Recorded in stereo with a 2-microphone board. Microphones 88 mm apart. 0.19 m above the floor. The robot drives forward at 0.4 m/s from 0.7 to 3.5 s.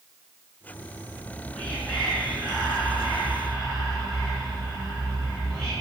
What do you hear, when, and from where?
1.1 s whispering: 10° left (ahead or behind), 1.1 m